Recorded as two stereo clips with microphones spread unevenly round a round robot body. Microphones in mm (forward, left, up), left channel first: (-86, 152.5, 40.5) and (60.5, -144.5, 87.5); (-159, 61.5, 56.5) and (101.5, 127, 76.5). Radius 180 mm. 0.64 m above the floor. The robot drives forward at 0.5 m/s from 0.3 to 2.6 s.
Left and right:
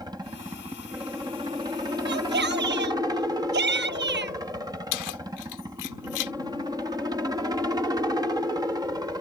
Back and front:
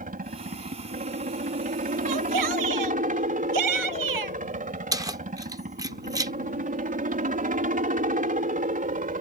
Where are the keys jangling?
95° left.